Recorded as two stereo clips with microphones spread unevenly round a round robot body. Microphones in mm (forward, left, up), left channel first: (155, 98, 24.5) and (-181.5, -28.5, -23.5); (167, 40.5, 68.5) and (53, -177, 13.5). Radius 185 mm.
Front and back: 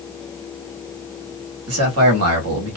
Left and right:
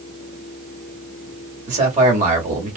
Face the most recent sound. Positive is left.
turn(degrees=-150)